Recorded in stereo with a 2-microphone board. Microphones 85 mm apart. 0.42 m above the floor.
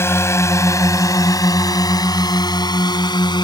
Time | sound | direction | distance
0.0 | a drone | 30° left (ahead or behind) | ?